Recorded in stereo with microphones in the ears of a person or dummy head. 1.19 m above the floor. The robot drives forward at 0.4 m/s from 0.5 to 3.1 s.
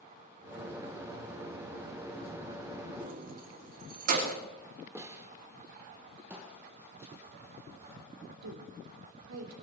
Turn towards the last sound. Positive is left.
turn(degrees=-85)